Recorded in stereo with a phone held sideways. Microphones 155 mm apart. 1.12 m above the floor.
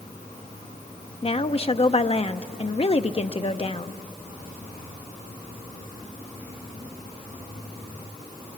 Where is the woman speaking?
40° left (ahead or behind), 0.7 m.